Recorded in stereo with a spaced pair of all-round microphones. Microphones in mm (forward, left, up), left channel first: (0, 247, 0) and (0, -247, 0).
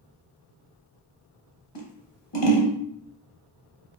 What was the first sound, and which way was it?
Scissors, 60° left (ahead or behind).